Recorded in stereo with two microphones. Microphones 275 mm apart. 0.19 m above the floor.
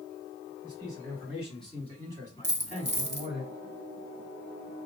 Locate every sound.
0.6 s a man speaking: 20° right (ahead or behind), 1.7 m; by 3.4 s 35° left (ahead or behind), 2.0 m
2.4 s a dropped coin: 40° right (ahead or behind), 0.8 m